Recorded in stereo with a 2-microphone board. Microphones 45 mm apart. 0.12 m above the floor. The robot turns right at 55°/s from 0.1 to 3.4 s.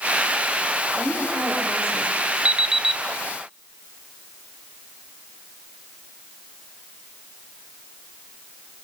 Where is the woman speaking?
60° left, 8.5 m; by 2.2 s 125° left, 8.5 m.